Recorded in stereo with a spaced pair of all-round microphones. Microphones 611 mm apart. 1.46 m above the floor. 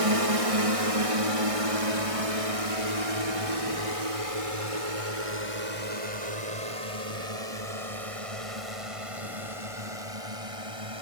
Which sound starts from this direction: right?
A drone, at 0.0 s.